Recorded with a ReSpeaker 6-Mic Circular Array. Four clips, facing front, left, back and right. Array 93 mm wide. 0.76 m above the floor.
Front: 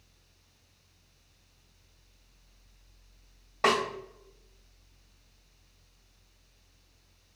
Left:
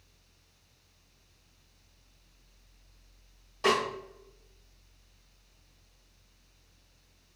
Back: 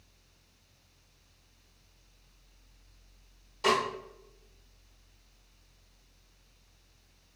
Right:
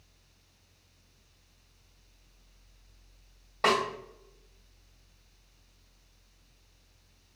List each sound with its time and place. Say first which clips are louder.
3.6 s a snare drum: right 1 dB, front 1 dB; 45° right, 1.7 m